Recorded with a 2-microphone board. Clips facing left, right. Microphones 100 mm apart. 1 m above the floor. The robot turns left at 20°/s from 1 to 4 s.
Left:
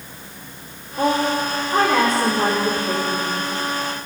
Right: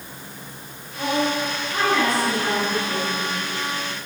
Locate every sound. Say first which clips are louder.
1.0 s a woman speaking: left 4 dB; 130° left, 3 m; by 3.5 s 80° left, 3 m